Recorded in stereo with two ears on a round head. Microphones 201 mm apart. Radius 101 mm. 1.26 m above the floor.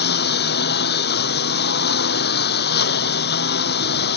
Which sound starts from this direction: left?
A lawn mower, at 0.0 s.